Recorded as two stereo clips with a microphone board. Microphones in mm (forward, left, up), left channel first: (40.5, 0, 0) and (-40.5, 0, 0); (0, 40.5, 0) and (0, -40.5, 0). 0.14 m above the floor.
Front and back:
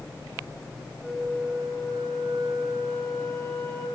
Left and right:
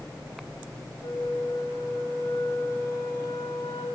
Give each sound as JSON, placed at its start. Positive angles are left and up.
{"t": 1.0, "sound": "a flute", "azimuth_deg": 75, "distance_m": 7.5}